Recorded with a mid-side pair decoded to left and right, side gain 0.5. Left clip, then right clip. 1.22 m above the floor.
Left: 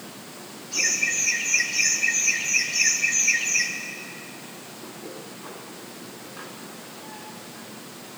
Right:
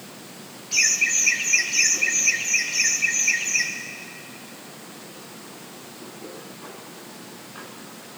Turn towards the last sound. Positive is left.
turn(degrees=-25)